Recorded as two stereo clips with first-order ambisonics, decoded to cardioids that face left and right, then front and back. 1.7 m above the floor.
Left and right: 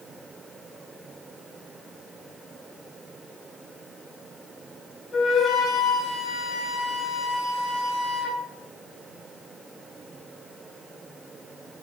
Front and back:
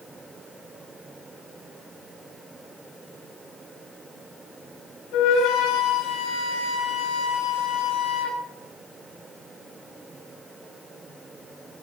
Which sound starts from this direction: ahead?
A flute, at 5.1 s.